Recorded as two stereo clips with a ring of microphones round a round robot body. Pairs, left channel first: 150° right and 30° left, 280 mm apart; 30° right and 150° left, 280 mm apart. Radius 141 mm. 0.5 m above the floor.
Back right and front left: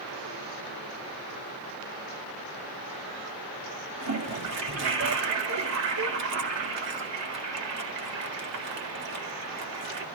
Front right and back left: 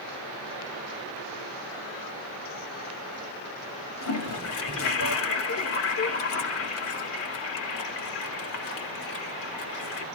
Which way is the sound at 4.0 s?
5° left.